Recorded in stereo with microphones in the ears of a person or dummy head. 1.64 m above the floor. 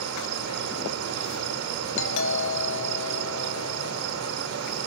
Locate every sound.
0.0 s an insect: 85° right, 4.5 m
2.0 s a doorbell: 70° left (ahead or behind), 3 m